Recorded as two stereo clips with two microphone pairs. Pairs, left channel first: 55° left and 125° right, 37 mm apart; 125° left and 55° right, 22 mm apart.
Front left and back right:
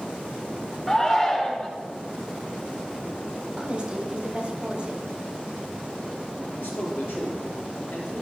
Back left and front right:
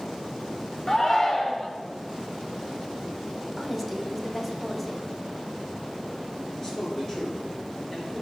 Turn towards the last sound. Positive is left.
turn(degrees=55)